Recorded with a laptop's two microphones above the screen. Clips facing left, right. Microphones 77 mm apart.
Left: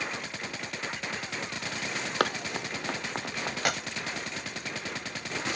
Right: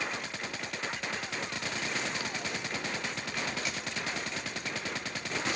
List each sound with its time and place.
2.2 s running footsteps: 75° left (ahead or behind); by 3.5 s 70° left (ahead or behind)
3.6 s a clap: 85° left